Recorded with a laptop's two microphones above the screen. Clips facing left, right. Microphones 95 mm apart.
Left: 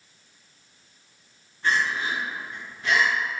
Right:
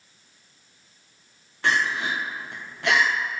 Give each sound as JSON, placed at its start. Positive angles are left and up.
{"t": 1.6, "sound": "crying", "side_deg": -80, "distance_m": 0.5}